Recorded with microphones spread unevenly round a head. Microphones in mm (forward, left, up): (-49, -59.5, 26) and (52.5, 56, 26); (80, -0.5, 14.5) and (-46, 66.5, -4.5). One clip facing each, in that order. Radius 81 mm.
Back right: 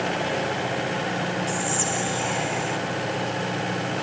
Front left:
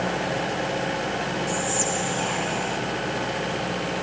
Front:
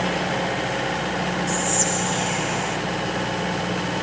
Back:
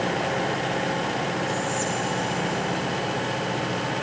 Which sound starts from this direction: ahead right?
Whispering, at 1.5 s.